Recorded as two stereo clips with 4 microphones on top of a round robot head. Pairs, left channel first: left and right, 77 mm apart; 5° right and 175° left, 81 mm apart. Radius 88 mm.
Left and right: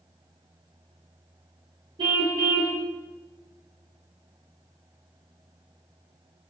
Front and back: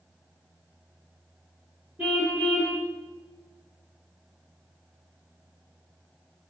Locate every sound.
2.0 s a car horn: 110° right, 7 m